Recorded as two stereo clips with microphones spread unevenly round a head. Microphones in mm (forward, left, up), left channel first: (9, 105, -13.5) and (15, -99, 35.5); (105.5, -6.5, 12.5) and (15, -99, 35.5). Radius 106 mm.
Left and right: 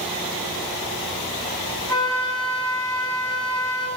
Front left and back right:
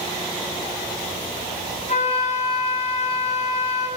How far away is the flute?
About 7 m.